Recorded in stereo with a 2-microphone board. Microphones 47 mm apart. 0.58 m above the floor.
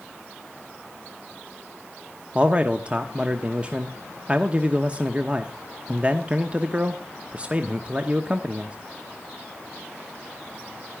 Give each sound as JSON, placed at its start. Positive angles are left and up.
{"t": 2.4, "sound": "a man speaking", "side_deg": -25, "distance_m": 1.0}